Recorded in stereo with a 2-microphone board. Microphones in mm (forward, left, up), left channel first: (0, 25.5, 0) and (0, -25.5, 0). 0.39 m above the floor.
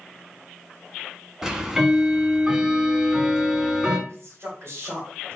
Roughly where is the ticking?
Centre.